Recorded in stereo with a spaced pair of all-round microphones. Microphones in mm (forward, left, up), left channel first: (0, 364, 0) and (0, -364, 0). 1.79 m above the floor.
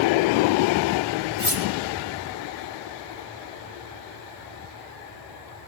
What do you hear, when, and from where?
1.4 s cutlery clinking: 40° left (ahead or behind), 3 m